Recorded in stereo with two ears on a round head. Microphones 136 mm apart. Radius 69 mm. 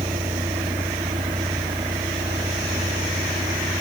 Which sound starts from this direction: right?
A vehicle, at 0.0 s.